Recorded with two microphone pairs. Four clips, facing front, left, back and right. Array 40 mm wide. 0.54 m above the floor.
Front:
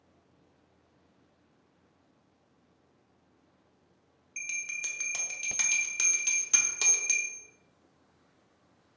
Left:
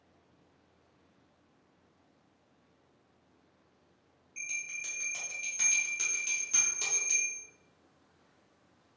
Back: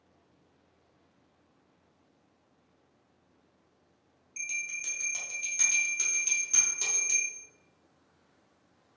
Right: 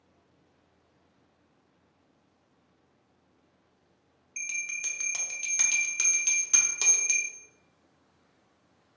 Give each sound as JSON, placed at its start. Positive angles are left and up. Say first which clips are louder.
{"t": 4.4, "sound": "a bell", "louder": "right 4 dB, even", "azimuth_deg": -30, "distance_m": 0.7}